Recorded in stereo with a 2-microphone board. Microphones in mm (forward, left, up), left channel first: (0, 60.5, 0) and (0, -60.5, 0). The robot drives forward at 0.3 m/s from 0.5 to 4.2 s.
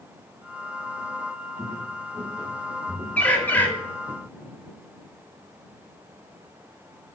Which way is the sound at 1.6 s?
40° right (ahead or behind).